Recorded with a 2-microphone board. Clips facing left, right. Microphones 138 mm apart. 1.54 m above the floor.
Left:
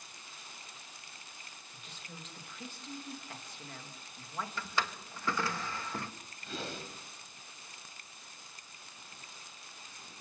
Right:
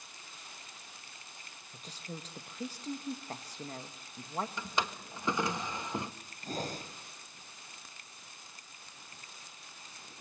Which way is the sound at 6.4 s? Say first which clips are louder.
Right 3 dB; 40° right (ahead or behind).